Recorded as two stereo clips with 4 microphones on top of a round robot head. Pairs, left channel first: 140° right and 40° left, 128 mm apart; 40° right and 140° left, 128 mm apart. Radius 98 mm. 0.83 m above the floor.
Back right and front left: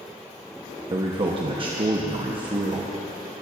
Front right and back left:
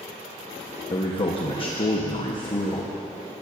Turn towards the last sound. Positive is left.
turn(degrees=0)